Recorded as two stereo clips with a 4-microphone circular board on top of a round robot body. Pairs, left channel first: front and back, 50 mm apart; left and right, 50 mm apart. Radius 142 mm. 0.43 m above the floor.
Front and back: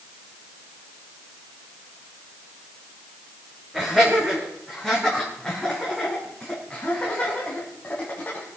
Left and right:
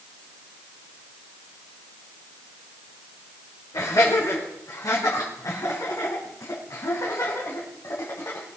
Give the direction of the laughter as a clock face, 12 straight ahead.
9 o'clock.